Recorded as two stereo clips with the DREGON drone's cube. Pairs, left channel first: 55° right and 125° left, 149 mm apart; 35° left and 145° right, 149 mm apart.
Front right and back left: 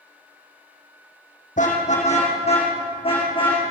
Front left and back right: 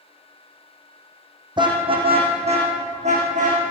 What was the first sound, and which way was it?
A car horn, 90° right.